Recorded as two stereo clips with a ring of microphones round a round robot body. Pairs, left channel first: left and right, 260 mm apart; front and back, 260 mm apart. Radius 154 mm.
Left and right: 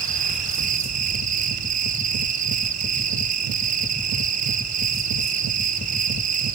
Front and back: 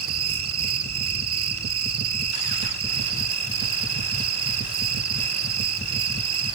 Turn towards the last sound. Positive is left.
turn(degrees=-150)